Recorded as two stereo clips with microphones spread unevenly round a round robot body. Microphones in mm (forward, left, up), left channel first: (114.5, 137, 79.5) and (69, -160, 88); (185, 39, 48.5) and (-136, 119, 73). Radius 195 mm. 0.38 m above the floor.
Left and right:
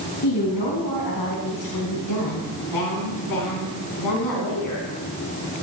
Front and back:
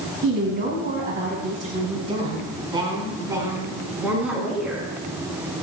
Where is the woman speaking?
110° left, 4.5 m; by 4.9 s 75° left, 5.5 m.